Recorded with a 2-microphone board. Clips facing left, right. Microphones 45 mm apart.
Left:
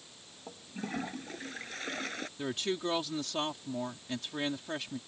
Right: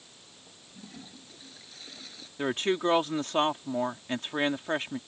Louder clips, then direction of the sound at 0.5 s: Left 11 dB; 55° left (ahead or behind).